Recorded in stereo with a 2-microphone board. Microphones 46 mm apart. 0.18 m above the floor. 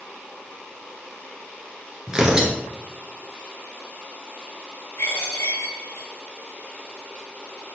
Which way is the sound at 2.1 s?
10° right (ahead or behind).